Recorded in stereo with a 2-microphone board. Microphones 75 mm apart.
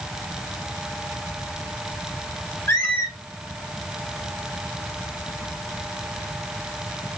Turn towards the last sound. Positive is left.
turn(degrees=30)  # may be behind; listen again after turning